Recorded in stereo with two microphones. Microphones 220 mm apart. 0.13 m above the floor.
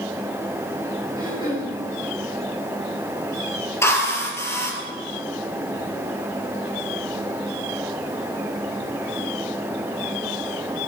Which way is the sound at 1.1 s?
20° right (ahead or behind).